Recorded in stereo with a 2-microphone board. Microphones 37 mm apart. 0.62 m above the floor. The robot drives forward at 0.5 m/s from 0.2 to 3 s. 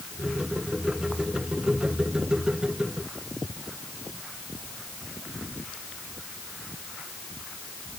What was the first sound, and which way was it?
Only background noise.